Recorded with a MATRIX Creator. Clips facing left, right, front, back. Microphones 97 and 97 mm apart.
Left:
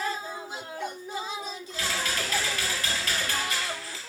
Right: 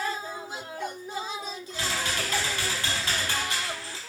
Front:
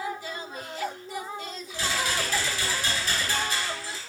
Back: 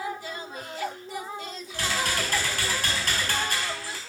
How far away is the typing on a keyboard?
About 4 m.